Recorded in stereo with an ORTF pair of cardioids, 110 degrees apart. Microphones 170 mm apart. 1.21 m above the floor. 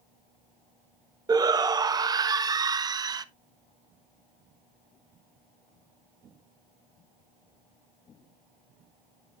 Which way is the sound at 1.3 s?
25° right.